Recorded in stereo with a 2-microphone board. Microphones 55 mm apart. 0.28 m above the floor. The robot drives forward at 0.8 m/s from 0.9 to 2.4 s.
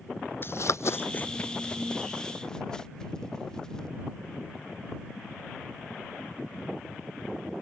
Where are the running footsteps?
45° left (ahead or behind); by 3.9 s 15° left (ahead or behind).